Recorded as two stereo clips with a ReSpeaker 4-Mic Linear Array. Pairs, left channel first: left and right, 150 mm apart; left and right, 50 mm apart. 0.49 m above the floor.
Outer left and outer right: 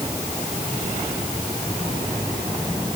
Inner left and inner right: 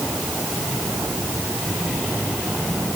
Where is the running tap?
I don't hear a running tap.